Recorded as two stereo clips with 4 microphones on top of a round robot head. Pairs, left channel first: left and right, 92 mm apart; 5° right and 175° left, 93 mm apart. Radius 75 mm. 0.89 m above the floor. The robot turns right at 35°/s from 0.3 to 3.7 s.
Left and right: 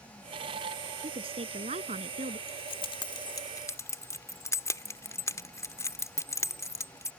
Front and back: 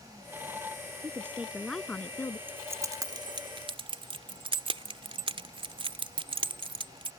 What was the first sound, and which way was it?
A woman speaking, 115° right.